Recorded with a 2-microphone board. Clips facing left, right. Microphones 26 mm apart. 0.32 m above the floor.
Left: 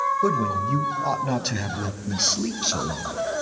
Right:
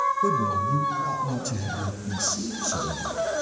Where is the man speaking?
40° left (ahead or behind), 1.1 m; by 3.0 s 70° left (ahead or behind), 3 m.